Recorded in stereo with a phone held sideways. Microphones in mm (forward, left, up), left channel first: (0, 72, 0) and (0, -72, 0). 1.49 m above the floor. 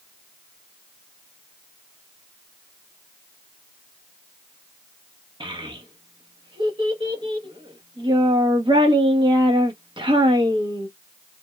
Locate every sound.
5.4 s a child speaking: 35° right (ahead or behind), 0.9 m